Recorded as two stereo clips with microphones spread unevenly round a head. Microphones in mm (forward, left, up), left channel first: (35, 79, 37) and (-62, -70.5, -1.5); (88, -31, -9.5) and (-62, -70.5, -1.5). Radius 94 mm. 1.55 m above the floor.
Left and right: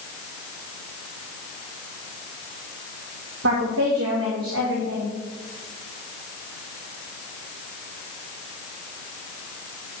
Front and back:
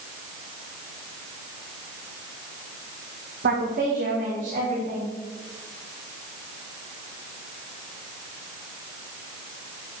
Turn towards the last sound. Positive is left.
turn(degrees=-130)